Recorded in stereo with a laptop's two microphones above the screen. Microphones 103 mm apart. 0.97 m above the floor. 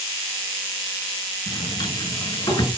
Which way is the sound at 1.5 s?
45° left (ahead or behind).